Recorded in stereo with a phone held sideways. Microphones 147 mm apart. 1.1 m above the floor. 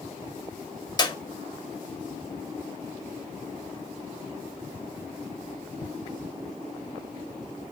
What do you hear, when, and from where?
1.0 s a clap: 30° left (ahead or behind), 2.0 m